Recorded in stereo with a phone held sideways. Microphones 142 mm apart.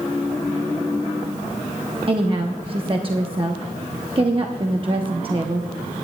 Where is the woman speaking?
40° right (ahead or behind), 0.8 m.